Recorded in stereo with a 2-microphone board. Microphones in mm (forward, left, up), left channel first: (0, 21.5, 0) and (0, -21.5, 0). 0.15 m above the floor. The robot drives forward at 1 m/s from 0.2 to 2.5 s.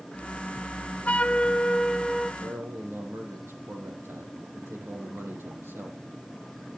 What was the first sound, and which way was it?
A flute, 35° left (ahead or behind).